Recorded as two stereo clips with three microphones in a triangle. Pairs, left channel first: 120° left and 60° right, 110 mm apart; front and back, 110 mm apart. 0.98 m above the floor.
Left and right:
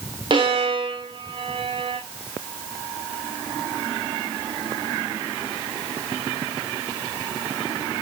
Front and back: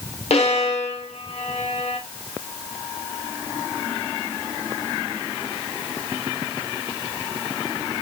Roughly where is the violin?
Ahead.